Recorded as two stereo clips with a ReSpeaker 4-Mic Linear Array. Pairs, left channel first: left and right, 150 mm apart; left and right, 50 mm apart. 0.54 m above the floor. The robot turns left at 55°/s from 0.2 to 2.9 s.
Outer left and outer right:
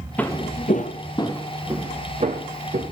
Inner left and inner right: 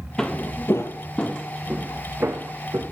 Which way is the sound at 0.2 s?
10° left (ahead or behind).